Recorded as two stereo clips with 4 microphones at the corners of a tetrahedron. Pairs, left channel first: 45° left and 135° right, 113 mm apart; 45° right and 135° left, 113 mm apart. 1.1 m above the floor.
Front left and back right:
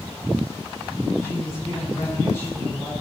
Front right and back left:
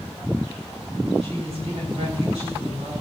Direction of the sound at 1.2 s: 110° left.